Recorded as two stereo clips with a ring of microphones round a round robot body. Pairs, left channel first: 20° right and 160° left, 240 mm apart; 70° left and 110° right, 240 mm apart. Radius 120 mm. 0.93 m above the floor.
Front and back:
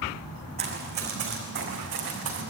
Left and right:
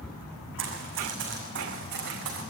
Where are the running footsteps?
150° right, 4 m; by 2.4 s 160° right, 5 m.